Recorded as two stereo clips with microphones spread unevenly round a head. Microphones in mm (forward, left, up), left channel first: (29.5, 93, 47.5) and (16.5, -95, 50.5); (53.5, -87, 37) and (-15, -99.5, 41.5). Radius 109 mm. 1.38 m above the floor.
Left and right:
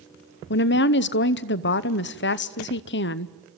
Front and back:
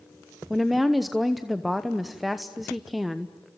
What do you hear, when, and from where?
0.5 s a woman speaking: 100° left, 0.8 m